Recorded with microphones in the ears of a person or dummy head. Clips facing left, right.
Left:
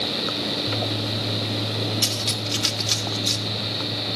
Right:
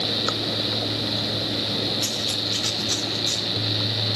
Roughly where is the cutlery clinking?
Left.